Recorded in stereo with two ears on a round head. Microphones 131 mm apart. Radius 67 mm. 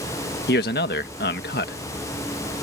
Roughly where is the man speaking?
Left.